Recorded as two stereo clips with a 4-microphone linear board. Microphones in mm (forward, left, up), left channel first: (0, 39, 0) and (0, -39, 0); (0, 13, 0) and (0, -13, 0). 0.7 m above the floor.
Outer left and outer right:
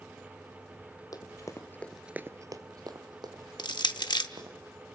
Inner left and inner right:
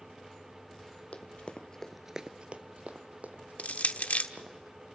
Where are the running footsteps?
50° left (ahead or behind), 1.6 m; by 4.6 s 65° right (ahead or behind), 4 m.